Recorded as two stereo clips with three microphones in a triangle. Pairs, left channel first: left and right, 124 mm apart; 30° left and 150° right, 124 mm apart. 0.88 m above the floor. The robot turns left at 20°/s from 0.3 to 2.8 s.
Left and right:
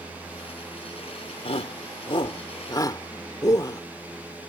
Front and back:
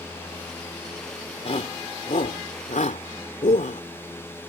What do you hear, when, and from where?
1.4 s a shout: 60° left; by 3.8 s 30° left